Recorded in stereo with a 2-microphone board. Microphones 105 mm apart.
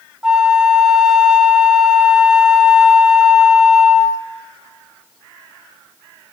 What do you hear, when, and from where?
0.2 s a flute: 5° right (ahead or behind), 1.5 m